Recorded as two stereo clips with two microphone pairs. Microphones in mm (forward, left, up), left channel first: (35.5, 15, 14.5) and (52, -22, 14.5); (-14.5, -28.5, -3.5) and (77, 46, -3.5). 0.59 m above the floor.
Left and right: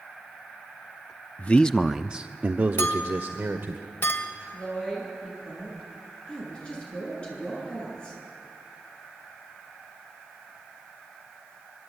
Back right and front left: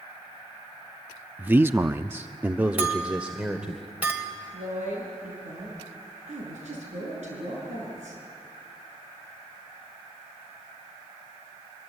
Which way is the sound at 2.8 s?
115° left.